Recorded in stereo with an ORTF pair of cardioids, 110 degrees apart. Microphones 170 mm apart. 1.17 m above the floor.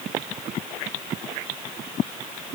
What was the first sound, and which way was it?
Only background noise.